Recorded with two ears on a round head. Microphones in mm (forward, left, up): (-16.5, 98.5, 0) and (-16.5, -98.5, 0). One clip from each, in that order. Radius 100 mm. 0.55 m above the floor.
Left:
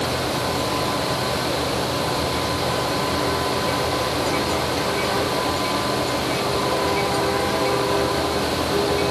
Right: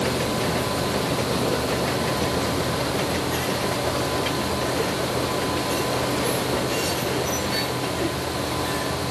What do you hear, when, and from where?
Only background noise.